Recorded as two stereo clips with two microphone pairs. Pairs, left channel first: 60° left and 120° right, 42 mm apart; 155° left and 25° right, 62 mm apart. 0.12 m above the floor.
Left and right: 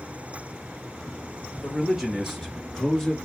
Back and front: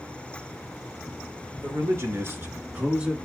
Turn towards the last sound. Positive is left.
turn(degrees=20)